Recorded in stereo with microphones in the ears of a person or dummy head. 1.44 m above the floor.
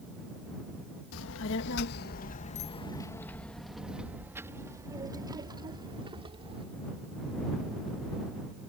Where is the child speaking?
75° left (ahead or behind); by 6.7 s 30° right (ahead or behind).